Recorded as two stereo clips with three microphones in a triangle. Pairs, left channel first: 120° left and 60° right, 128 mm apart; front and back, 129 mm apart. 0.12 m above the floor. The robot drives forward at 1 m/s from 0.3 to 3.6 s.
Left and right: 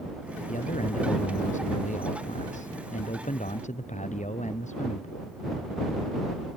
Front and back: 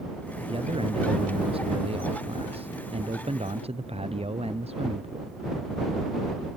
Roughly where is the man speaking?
Behind left.